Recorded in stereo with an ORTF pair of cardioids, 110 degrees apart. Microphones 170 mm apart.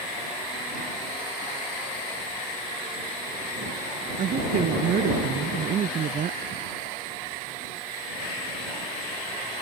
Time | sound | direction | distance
4.2 | a woman speaking | 50° right | ?